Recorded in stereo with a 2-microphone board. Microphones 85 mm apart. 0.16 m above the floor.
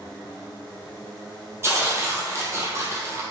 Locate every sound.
1.6 s tearing paper: 30° right (ahead or behind), 1.0 m